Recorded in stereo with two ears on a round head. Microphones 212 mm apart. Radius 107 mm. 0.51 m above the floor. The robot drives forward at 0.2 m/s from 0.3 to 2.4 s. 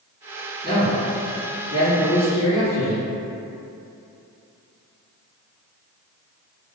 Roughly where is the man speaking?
Left.